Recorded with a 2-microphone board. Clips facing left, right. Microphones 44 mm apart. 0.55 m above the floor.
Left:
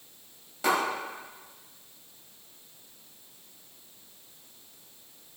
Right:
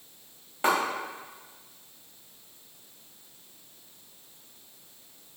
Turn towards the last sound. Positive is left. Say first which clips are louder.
# right 1 dB
turn(degrees=-30)  # may be behind; listen again after turning